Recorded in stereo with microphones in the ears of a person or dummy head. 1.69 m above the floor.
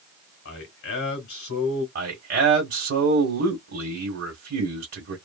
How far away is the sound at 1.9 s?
About 1.2 m.